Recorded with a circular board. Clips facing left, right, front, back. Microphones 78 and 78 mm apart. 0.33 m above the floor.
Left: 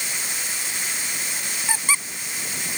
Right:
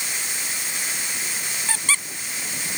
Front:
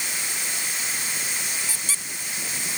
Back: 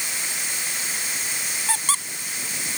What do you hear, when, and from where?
1.7 s a squeak: 165° left